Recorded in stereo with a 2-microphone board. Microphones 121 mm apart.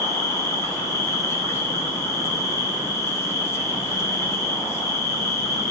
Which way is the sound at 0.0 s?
25° left (ahead or behind).